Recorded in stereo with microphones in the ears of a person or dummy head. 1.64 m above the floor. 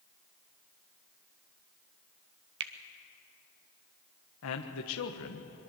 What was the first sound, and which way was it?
A finger snap, 70° right (ahead or behind).